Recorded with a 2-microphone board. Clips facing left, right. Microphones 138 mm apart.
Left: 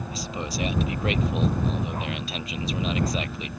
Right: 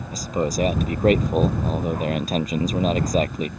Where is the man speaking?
45° right (ahead or behind).